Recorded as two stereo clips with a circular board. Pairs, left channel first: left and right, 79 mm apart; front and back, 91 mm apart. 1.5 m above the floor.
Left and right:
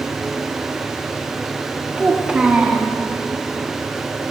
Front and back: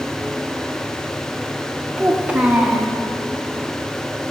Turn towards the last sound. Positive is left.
turn(degrees=-135)